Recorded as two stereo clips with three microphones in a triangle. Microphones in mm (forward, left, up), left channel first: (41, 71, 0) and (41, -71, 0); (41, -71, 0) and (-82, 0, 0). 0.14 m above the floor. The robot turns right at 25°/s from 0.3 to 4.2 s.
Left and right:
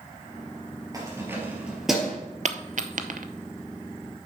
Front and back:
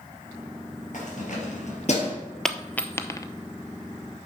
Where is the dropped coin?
115° right, 0.6 m; by 3.3 s 95° right, 0.6 m.